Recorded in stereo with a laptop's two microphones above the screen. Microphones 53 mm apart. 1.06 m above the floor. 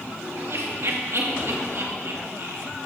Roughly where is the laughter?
Right.